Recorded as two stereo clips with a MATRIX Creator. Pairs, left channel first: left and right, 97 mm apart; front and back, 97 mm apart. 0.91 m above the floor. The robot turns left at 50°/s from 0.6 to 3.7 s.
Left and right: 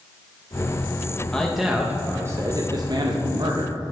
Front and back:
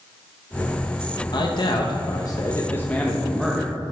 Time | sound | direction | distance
1.3 | a man speaking | 10° left | 0.7 m